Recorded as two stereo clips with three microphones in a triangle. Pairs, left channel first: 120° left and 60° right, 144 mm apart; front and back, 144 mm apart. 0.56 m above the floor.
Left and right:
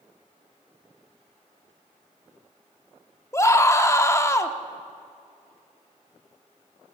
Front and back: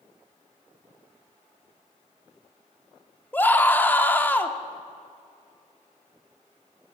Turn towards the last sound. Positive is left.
turn(degrees=65)